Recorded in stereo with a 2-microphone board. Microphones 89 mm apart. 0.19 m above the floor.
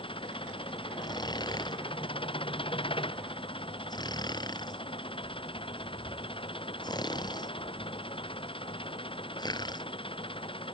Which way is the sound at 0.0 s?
80° left.